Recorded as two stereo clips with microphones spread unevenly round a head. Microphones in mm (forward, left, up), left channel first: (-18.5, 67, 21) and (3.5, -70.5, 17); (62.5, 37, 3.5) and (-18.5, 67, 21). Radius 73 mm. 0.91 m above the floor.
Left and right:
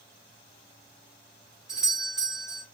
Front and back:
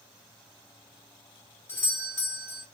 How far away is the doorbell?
About 1.5 m.